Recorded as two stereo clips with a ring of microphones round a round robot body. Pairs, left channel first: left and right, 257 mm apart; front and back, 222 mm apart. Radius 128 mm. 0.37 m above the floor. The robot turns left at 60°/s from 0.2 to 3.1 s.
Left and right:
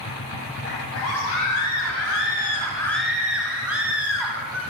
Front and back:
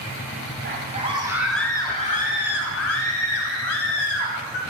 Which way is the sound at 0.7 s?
140° left.